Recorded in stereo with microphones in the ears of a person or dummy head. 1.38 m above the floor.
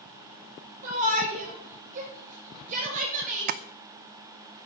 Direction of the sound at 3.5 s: 45° right (ahead or behind).